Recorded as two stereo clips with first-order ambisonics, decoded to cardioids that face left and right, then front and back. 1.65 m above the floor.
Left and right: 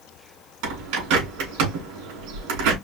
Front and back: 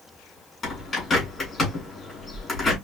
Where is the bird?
75° right, 3 m.